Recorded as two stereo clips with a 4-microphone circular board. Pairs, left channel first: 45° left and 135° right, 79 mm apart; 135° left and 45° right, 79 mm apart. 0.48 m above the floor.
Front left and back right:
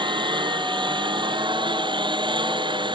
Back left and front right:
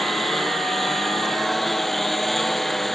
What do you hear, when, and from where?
0.0 s a lawn mower: 135° right